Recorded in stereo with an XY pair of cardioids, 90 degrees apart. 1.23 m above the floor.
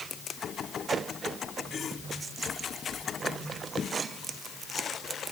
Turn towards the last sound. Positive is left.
No sound to turn to.